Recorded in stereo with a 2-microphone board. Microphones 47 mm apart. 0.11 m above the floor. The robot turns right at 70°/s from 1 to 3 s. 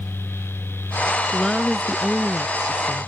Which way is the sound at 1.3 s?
10° left (ahead or behind).